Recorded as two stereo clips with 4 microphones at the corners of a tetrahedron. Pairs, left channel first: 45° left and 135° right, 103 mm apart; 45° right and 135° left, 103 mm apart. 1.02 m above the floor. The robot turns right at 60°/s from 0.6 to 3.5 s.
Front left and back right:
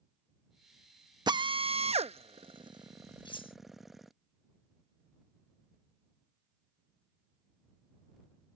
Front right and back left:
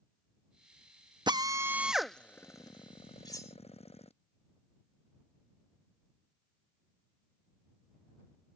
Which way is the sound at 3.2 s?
5° left.